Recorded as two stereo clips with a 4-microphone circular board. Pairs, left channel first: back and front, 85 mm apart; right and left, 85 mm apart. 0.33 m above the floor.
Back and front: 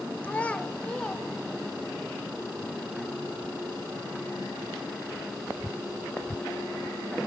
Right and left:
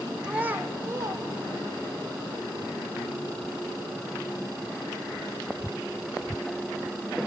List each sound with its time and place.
0.2 s a child speaking: 150° left, 0.8 m; by 2.0 s 95° left, 1.4 m